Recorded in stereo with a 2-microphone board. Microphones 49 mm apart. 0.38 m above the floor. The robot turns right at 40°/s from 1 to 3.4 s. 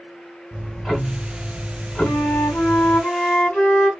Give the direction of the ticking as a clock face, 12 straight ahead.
12 o'clock.